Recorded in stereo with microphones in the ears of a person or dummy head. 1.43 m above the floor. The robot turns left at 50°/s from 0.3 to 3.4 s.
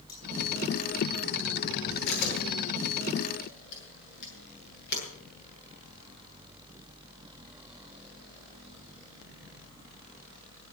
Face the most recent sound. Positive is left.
turn(degrees=55)  # may be behind; listen again after turning